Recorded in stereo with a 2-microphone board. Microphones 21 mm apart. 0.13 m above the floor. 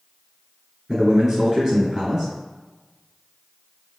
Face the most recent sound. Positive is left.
turn(degrees=-20)  # may be behind; listen again after turning